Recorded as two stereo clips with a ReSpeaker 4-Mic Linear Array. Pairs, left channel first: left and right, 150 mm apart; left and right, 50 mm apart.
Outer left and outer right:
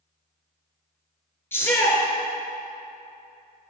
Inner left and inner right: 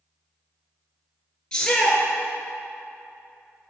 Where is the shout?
15° left (ahead or behind), 1.3 m.